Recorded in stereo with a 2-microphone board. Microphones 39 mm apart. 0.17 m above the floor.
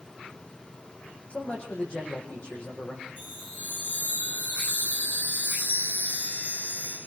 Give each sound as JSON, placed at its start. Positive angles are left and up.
{"t": 1.3, "sound": "a man speaking", "side_deg": 35, "distance_m": 7.0}
{"t": 3.2, "sound": "a chime", "side_deg": 40, "distance_m": 6.0}